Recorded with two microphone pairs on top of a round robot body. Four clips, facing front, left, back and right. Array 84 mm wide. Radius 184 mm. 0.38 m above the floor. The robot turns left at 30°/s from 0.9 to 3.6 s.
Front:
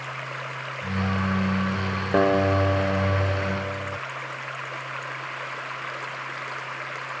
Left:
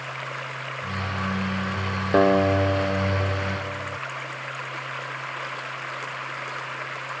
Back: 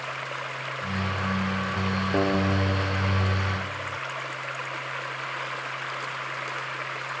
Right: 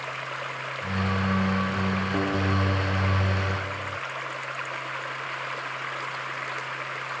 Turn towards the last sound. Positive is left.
turn(degrees=20)